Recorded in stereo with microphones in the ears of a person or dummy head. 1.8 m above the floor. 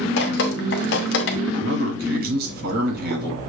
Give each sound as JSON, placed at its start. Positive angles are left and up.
{"t": 0.2, "sound": "dripping", "side_deg": 65, "distance_m": 0.8}
{"t": 1.5, "sound": "a man speaking", "side_deg": -60, "distance_m": 1.9}